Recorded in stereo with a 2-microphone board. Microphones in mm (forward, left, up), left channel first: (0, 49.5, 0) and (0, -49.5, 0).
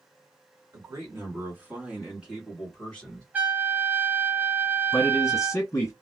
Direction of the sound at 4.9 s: 30° left (ahead or behind).